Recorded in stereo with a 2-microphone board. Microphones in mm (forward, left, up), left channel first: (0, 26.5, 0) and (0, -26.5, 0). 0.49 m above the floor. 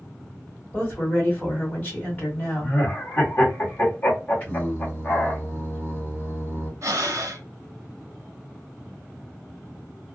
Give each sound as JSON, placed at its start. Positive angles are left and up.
{"t": 0.7, "sound": "a woman speaking", "side_deg": 30, "distance_m": 1.8}
{"t": 2.6, "sound": "laughter", "side_deg": 35, "distance_m": 1.2}
{"t": 4.4, "sound": "singing", "side_deg": 25, "distance_m": 1.5}
{"t": 6.8, "sound": "breathing", "side_deg": -65, "distance_m": 0.7}